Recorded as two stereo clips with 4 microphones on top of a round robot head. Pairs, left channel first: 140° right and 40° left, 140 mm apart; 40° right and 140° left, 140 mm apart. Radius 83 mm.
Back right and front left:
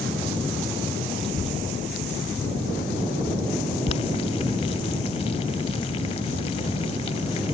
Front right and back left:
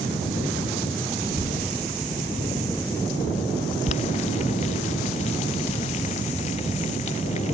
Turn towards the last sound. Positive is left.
turn(degrees=-85)